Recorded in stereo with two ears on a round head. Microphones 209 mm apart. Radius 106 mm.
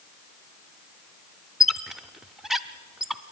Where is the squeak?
Centre (ahead or behind), 0.5 m.